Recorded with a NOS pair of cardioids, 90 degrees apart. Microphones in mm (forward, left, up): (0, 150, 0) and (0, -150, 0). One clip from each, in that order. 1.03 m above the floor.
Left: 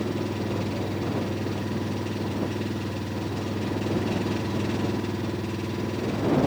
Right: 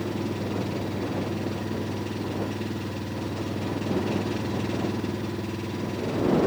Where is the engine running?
10° left.